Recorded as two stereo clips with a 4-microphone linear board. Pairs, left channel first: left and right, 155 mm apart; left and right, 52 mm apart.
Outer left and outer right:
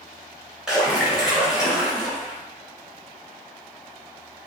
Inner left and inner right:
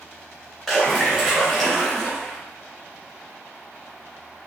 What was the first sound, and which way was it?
A splash, 5° right (ahead or behind).